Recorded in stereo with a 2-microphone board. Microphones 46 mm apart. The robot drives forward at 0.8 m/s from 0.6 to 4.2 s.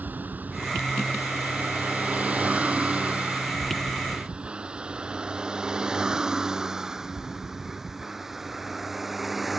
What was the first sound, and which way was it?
A vehicle, 40° right (ahead or behind).